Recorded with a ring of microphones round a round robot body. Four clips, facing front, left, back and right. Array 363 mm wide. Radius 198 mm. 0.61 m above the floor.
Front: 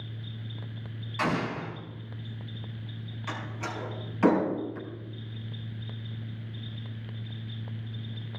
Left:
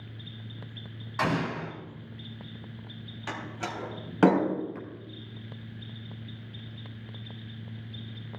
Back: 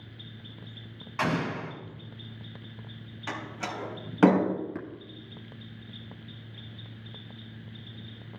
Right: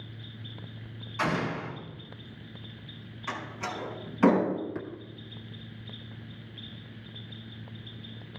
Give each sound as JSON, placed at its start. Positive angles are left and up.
{"t": 1.2, "sound": "an explosion", "azimuth_deg": 125, "distance_m": 3.5}
{"t": 3.3, "sound": "a door slam", "azimuth_deg": 135, "distance_m": 3.5}
{"t": 4.8, "sound": "tapping", "azimuth_deg": -165, "distance_m": 2.0}